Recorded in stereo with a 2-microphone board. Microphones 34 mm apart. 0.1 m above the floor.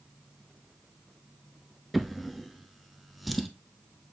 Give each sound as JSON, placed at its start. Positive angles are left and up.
{"t": 1.9, "sound": "a drawer", "side_deg": 0, "distance_m": 0.7}